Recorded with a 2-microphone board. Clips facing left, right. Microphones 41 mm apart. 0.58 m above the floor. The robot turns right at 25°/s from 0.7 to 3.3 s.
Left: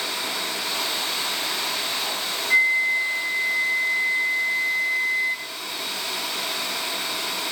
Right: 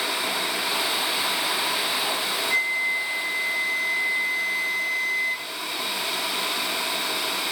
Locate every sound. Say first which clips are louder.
2.5 s a flute: left 6 dB; 25° left (ahead or behind), 0.9 m; by 5.5 s 5° left (ahead or behind), 0.9 m